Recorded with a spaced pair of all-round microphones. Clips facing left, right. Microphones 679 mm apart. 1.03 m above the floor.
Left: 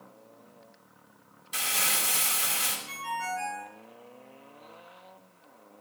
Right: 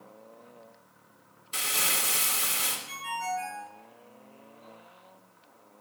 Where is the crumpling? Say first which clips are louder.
Right 1 dB; 25° left (ahead or behind), 2.5 m.